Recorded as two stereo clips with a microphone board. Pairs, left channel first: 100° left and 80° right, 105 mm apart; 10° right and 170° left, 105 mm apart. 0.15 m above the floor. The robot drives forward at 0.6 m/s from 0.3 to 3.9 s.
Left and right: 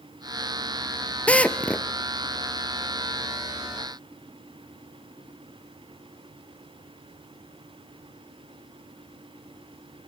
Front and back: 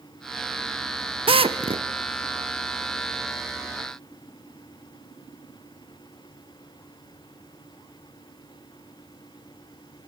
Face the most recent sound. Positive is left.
turn(degrees=180)